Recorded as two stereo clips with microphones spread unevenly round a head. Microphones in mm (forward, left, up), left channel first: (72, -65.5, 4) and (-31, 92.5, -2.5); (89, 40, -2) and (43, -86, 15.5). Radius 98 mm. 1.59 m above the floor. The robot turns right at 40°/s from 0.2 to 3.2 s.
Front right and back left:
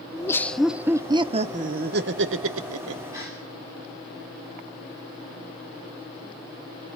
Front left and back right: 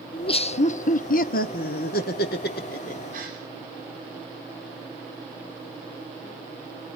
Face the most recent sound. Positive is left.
turn(degrees=-160)